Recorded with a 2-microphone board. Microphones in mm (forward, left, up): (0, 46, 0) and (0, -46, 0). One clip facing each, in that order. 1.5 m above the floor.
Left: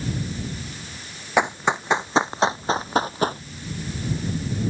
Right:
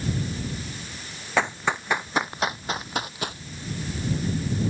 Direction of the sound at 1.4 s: 20° left (ahead or behind).